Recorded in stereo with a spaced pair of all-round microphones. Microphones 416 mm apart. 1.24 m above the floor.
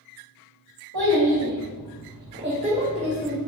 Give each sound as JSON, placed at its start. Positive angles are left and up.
{"t": 0.9, "sound": "a child speaking", "side_deg": -70, "distance_m": 0.9}